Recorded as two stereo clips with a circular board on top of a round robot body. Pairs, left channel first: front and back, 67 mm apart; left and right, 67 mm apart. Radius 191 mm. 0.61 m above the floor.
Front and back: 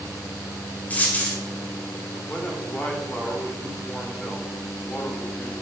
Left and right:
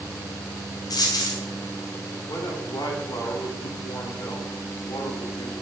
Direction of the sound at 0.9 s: 65° left.